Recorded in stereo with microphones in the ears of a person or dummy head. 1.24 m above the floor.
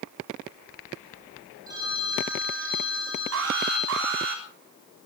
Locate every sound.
1.7 s a phone ringing: 15° right (ahead or behind), 7.5 m
3.3 s an alarm: 65° right (ahead or behind), 3.5 m